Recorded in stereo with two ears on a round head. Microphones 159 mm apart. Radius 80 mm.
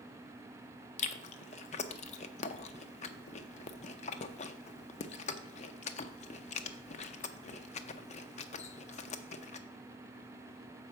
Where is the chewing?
40° left (ahead or behind), 0.5 m.